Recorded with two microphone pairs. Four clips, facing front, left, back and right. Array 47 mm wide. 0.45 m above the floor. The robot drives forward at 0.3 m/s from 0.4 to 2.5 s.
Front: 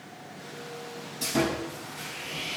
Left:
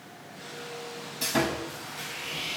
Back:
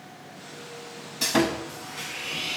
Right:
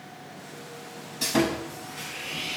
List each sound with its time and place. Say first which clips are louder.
1.2 s sawing: right 3 dB, back 3 dB; straight behind, 0.5 m